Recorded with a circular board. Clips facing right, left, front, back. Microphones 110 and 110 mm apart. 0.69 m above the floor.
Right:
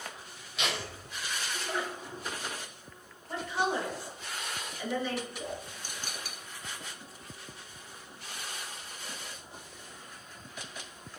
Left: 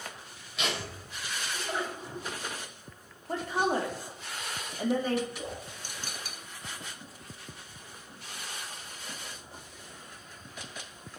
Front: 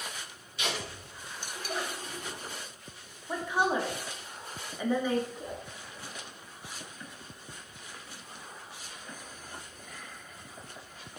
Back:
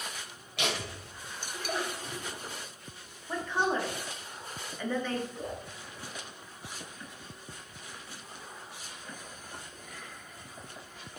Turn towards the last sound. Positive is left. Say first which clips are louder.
# even, back 2 dB
turn(degrees=155)